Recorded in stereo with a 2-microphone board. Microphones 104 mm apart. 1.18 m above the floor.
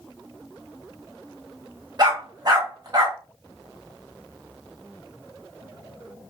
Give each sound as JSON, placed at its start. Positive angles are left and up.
{"t": 2.0, "sound": "a dog barking", "side_deg": -40, "distance_m": 1.2}